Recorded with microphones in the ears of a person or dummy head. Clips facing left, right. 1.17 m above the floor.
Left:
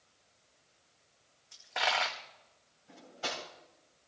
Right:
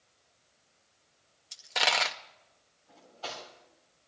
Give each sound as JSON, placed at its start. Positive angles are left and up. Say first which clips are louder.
{"t": 1.5, "sound": "a dropped coin", "louder": "right 2 dB", "side_deg": -40, "distance_m": 0.6}
{"t": 2.9, "sound": "cutlery clinking", "louder": "left 2 dB", "side_deg": 30, "distance_m": 4.0}